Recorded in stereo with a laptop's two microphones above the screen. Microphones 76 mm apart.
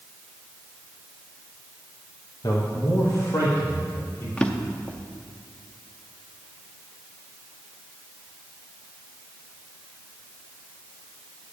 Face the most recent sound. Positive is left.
turn(degrees=15)  # may be behind; listen again after turning